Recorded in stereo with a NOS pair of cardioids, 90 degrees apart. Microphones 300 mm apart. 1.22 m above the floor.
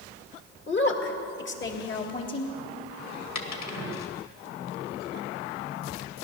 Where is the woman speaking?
40° left, 2 m.